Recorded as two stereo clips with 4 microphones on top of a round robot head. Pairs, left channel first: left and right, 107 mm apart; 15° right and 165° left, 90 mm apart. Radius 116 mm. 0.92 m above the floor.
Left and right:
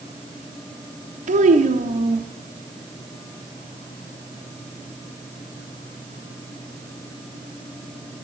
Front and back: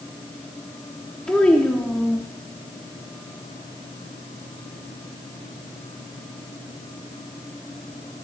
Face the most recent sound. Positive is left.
turn(degrees=-100)